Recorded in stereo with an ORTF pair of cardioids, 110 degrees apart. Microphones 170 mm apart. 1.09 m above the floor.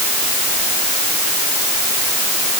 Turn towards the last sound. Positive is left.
No sound to turn to.